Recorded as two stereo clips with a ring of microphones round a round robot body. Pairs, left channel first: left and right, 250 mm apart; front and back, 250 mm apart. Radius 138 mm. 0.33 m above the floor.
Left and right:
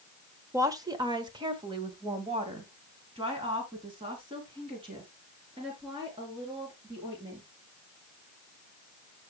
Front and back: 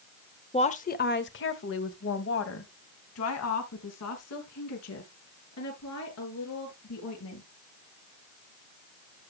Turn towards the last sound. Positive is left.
turn(degrees=-15)